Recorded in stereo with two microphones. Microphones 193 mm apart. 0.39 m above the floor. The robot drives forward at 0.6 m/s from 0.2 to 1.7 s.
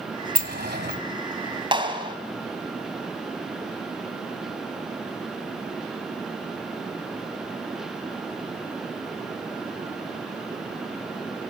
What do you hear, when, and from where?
0.3 s a sliding door: 55° right (ahead or behind), 1.8 m; by 1.0 s 60° right (ahead or behind), 1.6 m
1.7 s a clap: 25° right (ahead or behind), 3 m